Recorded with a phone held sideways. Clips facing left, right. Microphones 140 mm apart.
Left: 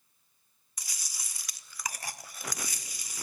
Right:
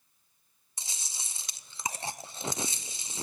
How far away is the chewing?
About 0.6 m.